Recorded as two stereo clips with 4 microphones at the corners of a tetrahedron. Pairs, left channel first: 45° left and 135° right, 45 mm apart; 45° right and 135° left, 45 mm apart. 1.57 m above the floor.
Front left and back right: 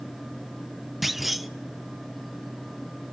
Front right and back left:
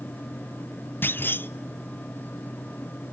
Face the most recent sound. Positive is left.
turn(degrees=-50)